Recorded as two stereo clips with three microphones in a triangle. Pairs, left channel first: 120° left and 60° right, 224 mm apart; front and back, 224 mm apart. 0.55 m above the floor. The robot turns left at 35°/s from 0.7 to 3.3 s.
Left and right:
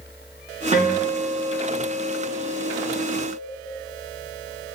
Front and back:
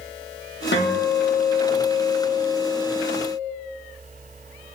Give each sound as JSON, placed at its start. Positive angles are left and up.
{"t": 0.7, "sound": "a guitar", "azimuth_deg": -10, "distance_m": 0.5}